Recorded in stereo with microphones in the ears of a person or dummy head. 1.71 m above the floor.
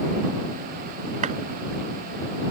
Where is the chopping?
40° right (ahead or behind).